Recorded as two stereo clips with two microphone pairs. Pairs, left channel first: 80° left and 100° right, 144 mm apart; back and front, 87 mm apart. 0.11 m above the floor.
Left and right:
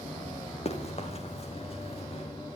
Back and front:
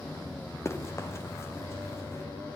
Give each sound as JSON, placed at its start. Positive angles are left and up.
{"t": 0.7, "sound": "running footsteps", "azimuth_deg": 125, "distance_m": 3.5}